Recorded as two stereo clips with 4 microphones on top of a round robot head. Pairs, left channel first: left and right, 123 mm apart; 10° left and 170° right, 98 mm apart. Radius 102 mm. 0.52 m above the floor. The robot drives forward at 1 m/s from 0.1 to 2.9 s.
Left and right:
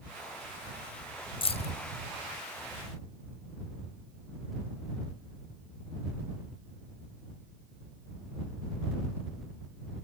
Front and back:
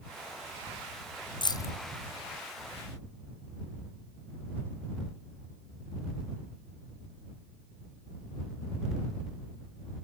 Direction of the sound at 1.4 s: 45° left.